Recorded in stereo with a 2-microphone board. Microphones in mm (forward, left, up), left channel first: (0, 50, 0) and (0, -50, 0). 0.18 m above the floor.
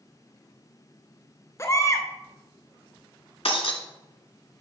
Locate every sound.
1.6 s a baby crying: 30° left (ahead or behind), 0.6 m
3.5 s breaking glass: 70° left (ahead or behind), 0.8 m